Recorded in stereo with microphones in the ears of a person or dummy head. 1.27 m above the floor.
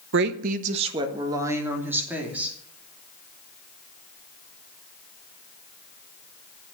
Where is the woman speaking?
70° right (ahead or behind), 1.1 m; by 2.5 s 5° right (ahead or behind), 3 m.